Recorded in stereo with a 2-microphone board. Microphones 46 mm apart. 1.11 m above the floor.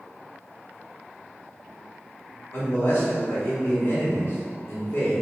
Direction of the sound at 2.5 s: 65° left (ahead or behind).